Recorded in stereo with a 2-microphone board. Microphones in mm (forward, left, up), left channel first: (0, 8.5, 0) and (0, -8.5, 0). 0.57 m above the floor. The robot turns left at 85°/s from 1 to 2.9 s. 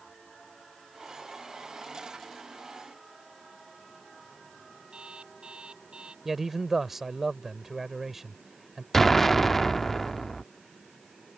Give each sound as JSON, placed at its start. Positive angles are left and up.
{"t": 4.9, "sound": "an alarm clock", "side_deg": -85}
{"t": 6.2, "sound": "a man speaking", "side_deg": -25}
{"t": 8.9, "sound": "an explosion", "side_deg": 20}